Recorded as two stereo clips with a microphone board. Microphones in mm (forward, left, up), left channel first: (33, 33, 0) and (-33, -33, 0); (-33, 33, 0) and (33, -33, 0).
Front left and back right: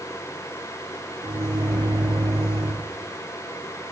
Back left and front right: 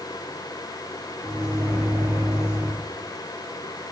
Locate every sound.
1.2 s a microwave: 110° right, 7.5 m